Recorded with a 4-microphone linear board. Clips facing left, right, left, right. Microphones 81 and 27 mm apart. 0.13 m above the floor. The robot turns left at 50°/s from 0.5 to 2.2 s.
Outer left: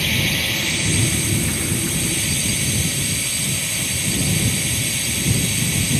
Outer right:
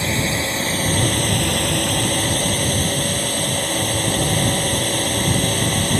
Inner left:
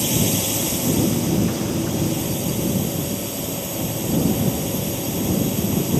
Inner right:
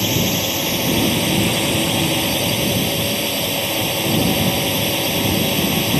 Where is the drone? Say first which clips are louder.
Outer right 2 dB, inner right 3 dB; 30° right; by 6.0 s 115° right.